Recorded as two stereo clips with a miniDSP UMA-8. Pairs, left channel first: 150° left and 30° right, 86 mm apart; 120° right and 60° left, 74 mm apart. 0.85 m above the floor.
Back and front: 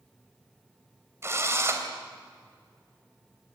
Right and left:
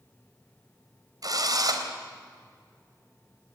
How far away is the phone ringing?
No phone ringing in this recording.